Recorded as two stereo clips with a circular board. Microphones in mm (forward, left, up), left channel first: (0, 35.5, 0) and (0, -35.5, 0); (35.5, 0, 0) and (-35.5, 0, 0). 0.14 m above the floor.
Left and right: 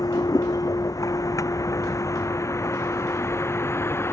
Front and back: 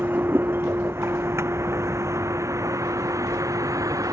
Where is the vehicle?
120° left; by 4.1 s 145° left.